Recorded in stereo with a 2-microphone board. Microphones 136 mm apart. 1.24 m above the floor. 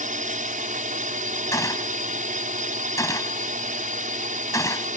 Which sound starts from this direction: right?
A drone, at 0.0 s.